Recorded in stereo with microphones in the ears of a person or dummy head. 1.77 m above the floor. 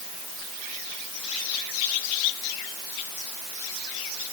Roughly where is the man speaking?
I don't hear a man speaking.